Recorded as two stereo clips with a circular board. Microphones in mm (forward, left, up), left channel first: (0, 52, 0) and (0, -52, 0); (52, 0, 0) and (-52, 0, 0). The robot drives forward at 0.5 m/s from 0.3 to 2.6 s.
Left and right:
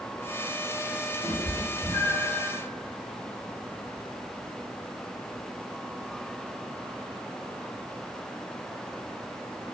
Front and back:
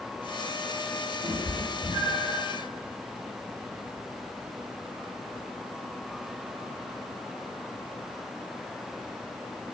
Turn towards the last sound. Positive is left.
turn(degrees=165)